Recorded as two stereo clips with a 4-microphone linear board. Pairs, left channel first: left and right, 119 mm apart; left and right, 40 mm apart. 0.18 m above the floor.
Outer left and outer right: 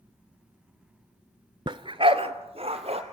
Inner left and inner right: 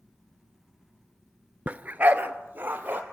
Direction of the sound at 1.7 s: 45° right (ahead or behind).